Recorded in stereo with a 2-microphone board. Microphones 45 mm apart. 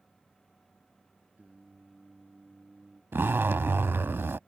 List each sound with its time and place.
1.4 s singing: 35° right (ahead or behind)
3.1 s a zipper: 60° right (ahead or behind)